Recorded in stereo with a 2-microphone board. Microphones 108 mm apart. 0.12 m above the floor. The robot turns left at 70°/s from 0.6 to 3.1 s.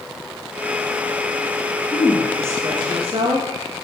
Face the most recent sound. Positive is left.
turn(degrees=-70)